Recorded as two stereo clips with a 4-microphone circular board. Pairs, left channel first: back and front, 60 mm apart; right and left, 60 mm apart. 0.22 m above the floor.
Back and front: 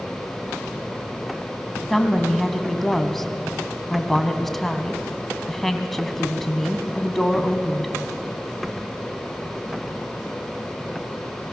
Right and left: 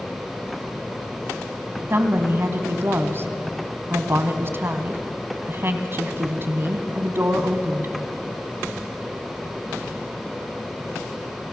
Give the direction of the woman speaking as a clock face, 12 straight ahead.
9 o'clock.